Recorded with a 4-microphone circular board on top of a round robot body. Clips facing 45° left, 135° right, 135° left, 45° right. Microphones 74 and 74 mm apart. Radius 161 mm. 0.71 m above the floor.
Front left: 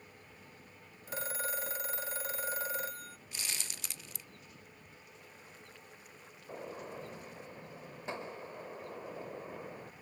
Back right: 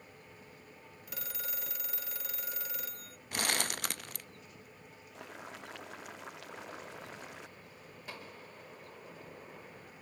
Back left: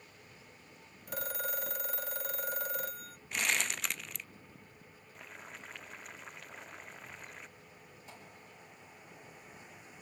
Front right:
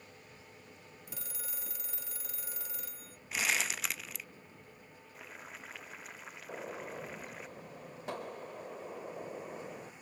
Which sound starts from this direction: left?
A phone ringing, at 1.1 s.